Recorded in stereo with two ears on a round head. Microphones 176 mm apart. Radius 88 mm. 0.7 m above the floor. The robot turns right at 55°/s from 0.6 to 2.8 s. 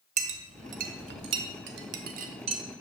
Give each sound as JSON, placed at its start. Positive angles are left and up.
{"t": 0.2, "sound": "a clink", "side_deg": -35, "distance_m": 0.7}